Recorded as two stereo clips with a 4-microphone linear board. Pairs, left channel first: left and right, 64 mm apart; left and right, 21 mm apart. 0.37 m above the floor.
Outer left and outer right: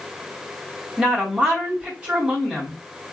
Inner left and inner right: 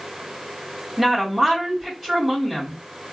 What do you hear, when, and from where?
1.0 s a woman speaking: 15° right (ahead or behind), 2 m